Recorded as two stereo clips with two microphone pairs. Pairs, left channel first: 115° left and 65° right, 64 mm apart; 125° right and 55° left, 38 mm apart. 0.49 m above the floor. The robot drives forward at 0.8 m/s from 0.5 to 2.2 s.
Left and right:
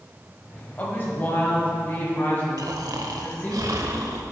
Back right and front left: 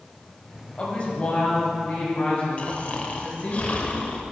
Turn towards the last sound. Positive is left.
turn(degrees=-75)